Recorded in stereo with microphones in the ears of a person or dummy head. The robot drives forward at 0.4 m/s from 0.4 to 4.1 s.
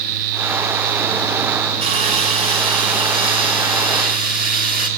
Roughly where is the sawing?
Right.